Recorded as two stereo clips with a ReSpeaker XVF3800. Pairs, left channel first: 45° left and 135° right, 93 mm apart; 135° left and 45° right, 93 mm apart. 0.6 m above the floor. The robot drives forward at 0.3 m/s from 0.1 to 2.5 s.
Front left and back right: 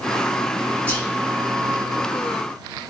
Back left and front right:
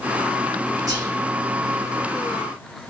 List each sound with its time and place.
0.9 s whispering: 25° right, 0.9 m